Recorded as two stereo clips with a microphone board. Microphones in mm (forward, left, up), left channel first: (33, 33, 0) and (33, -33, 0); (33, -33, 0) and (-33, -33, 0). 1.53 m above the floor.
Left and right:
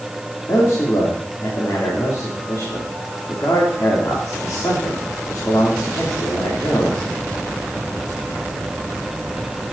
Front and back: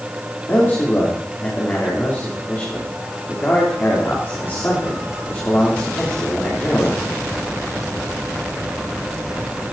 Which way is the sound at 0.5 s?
55° left.